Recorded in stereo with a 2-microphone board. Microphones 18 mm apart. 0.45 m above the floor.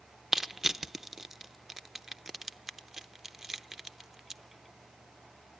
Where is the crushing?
20° right (ahead or behind), 0.6 m.